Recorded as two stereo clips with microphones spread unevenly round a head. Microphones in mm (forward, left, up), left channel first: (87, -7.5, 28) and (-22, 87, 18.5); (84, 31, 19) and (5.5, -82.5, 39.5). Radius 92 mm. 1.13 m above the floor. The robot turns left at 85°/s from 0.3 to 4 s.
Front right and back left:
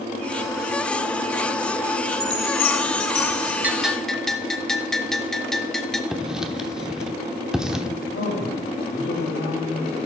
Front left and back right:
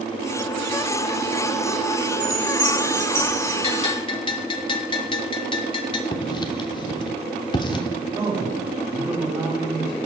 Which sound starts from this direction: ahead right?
A man speaking, at 8.1 s.